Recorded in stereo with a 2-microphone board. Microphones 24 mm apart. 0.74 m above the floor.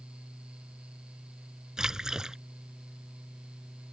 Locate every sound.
1.8 s a splash: 25° right (ahead or behind)